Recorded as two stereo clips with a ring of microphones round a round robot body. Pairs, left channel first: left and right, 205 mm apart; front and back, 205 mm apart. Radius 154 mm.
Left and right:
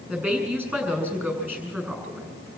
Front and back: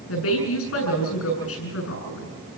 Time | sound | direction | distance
0.1 | a woman speaking | 10° right | 7.5 m